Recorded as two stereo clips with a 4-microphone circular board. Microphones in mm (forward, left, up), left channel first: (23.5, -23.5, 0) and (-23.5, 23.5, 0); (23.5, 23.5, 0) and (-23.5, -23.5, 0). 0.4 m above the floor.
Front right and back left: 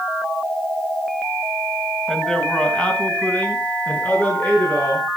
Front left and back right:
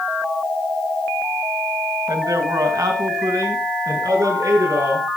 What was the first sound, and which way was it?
A man speaking, 130° right.